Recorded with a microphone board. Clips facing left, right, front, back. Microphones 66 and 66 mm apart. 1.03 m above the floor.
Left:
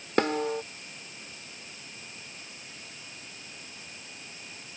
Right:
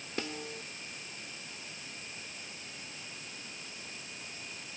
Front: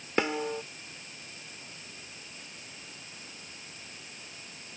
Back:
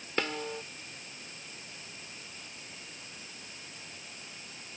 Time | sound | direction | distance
0.2 | a snare drum | 70° left | ?